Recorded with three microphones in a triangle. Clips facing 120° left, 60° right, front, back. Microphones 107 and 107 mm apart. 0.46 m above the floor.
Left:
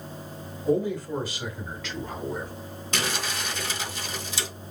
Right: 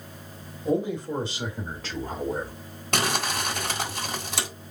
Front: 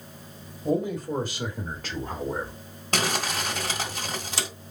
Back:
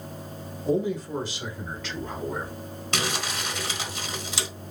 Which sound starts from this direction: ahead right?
Crumpling, at 2.9 s.